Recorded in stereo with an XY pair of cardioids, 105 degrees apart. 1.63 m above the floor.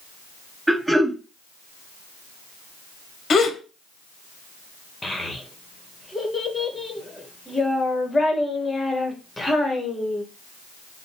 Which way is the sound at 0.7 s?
10° right.